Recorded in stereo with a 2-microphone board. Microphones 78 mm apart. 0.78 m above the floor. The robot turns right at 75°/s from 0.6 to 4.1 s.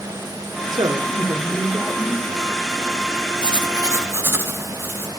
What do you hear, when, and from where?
0.7 s a woman speaking: 100° right, 2 m; by 2.3 s 20° left, 2 m
3.4 s writing: 85° right, 2.5 m; by 5.1 s 30° right, 2.5 m